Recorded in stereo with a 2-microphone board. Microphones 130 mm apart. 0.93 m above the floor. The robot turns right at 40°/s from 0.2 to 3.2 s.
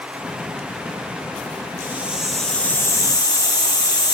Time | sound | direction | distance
1.8 | a hiss | 20° right | 2 m